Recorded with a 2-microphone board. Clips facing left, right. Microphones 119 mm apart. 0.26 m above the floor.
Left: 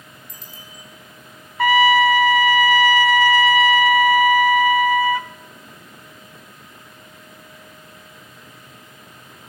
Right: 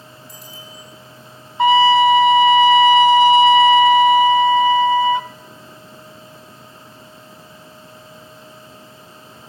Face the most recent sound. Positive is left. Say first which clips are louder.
# right 3 dB
turn(degrees=-25)  # may be behind; listen again after turning